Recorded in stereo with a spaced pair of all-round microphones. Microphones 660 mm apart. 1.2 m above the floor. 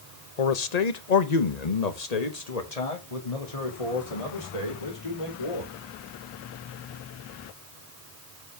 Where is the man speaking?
65° left (ahead or behind), 0.9 m; by 5.7 s 50° left (ahead or behind), 3.5 m.